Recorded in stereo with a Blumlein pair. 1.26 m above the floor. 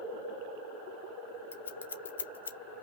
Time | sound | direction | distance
1.5 | scissors | 70° left | 0.7 m